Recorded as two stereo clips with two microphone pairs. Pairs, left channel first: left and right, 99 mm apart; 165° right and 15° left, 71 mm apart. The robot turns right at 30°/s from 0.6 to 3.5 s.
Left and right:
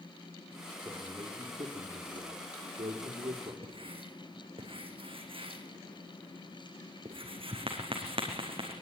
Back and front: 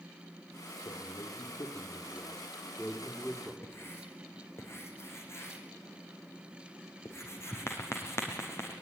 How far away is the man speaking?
About 4 m.